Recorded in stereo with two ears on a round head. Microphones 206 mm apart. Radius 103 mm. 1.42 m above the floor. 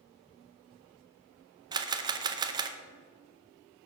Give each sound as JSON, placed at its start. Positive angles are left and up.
{"t": 1.7, "sound": "a camera shutter", "side_deg": -20, "distance_m": 0.5}